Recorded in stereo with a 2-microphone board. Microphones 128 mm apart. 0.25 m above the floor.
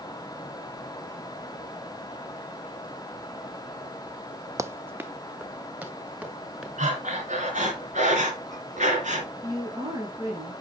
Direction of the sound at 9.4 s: 25° right (ahead or behind).